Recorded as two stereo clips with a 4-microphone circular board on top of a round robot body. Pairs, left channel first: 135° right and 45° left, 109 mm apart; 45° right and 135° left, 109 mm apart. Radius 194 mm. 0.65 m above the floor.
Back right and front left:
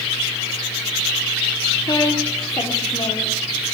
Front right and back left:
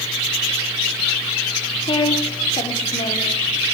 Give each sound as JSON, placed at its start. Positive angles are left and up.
{"t": 1.9, "sound": "a woman speaking", "azimuth_deg": -80, "distance_m": 2.5}